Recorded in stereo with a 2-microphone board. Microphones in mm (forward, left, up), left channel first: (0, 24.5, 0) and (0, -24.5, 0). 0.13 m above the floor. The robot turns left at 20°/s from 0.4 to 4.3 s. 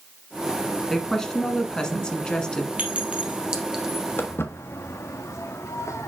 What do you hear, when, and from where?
0.9 s a woman speaking: 10° left (ahead or behind), 1.2 m; by 2.7 s 15° left (ahead or behind), 1.2 m
2.8 s a clink: 35° right (ahead or behind), 1.7 m; by 4.1 s 10° right (ahead or behind), 1.7 m
4.2 s footsteps: 50° left (ahead or behind), 1.5 m; by 6.1 s 85° left, 1.8 m